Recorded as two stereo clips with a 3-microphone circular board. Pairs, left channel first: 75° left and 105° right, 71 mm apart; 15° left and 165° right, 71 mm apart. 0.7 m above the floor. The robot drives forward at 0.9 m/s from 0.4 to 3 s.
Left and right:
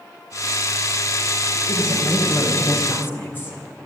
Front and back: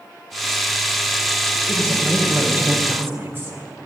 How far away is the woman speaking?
About 3 m.